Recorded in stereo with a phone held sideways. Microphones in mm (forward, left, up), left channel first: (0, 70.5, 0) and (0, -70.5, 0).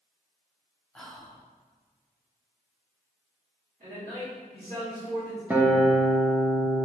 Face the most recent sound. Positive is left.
turn(degrees=-10)  # may be behind; listen again after turning